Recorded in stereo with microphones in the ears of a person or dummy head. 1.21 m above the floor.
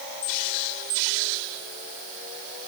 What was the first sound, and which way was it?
Only background noise.